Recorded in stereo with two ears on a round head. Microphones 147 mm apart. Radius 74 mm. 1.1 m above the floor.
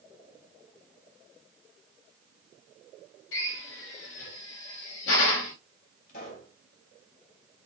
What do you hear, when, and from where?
3.3 s a drill: 90° left, 3 m
6.1 s a pop: 55° left (ahead or behind), 3.5 m